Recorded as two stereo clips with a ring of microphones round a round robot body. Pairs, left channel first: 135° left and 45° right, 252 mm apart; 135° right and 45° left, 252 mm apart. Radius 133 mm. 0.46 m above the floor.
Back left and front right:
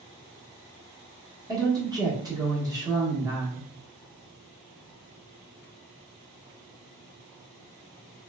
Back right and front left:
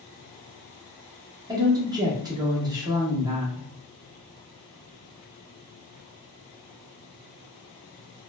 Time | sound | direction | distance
1.5 | a woman speaking | straight ahead | 0.9 m